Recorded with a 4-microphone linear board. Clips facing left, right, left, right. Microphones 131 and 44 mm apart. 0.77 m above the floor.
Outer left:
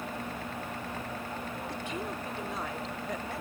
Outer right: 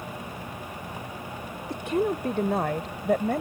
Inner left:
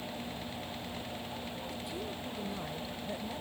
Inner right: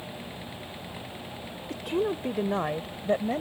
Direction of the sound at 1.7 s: 70° right (ahead or behind).